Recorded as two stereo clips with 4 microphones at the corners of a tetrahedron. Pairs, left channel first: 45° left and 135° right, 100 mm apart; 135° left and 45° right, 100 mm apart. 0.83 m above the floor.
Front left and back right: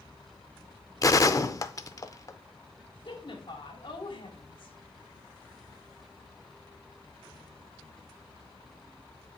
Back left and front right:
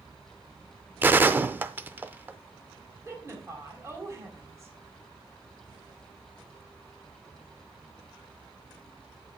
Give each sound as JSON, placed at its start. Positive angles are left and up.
{"t": 1.0, "sound": "a gunshot", "azimuth_deg": 15, "distance_m": 0.5}
{"t": 3.0, "sound": "a woman speaking", "azimuth_deg": 15, "distance_m": 2.5}